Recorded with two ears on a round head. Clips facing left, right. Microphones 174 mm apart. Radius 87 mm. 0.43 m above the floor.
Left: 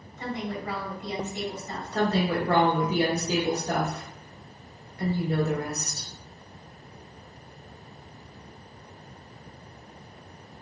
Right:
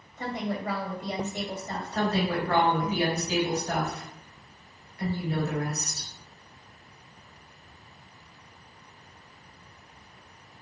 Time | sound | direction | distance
0.2 | a woman speaking | 40° right (ahead or behind) | 1.7 m
1.9 | a woman speaking | 35° left (ahead or behind) | 1.1 m